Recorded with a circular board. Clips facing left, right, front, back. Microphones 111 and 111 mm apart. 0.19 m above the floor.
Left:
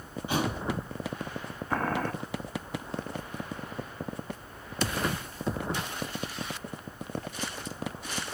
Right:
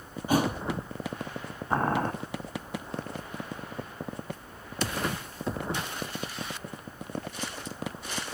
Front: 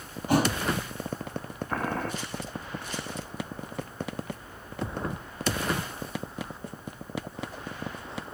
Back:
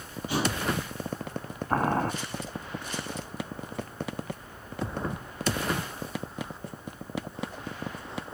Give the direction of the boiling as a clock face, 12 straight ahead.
5 o'clock.